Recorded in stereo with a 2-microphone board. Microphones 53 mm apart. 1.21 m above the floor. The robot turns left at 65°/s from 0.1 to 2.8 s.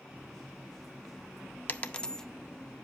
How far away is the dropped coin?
About 0.6 m.